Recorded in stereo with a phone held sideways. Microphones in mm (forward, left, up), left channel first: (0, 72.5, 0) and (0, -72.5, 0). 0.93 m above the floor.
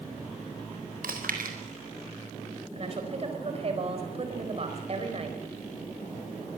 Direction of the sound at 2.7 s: 45° right (ahead or behind).